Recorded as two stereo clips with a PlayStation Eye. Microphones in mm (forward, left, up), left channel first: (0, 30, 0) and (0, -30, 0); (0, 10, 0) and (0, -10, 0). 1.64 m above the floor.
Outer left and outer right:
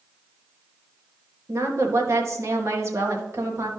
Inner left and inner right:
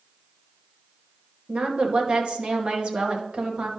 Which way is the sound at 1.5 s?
50° right (ahead or behind).